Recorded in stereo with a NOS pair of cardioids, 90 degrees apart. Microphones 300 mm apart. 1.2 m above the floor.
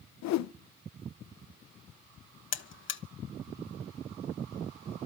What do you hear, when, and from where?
0.2 s a whoosh: 70° left, 0.6 m
2.5 s a buzzer: 45° left, 1.2 m